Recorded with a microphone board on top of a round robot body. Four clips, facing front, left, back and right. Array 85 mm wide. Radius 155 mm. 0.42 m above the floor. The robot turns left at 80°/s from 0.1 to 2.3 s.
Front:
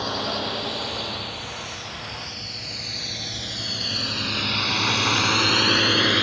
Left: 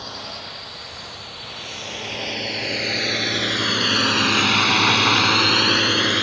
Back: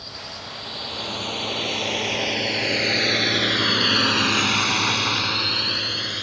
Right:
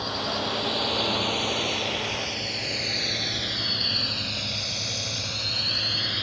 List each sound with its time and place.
0.0 s a drone: 15° right; by 6.2 s 50° left